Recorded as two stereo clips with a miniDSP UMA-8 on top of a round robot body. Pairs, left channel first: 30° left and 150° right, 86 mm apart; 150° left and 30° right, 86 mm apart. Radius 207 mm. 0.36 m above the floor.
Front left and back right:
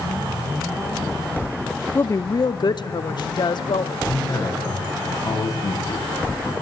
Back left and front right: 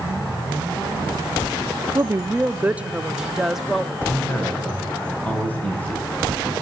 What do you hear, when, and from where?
1.9 s a woman speaking: 10° right, 0.9 m; by 4.0 s 60° left, 2 m
4.1 s a man speaking: 75° left, 9 m